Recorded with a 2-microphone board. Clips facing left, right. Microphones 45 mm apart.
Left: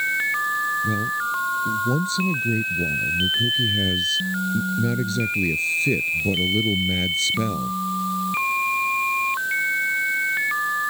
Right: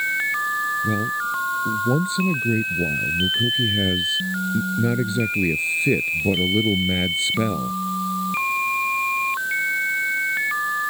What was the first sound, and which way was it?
A man speaking, 20° right (ahead or behind).